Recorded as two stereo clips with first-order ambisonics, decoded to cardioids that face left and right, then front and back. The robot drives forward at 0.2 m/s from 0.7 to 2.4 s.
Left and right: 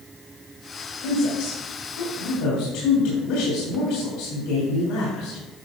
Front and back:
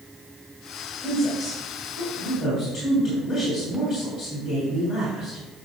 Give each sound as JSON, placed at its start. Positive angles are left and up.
{"t": 1.0, "sound": "a woman speaking", "azimuth_deg": 90, "distance_m": 3.0}